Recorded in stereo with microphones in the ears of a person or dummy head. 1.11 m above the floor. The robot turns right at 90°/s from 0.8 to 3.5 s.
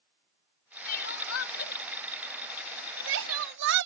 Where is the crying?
55° left (ahead or behind); by 3.9 s 70° right (ahead or behind).